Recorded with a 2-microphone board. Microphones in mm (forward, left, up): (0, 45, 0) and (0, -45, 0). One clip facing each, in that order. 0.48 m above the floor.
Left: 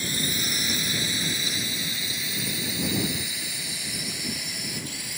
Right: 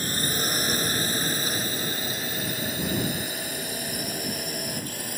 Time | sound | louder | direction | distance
0.0 | a drone | right 2 dB | 45° right (ahead or behind) | ?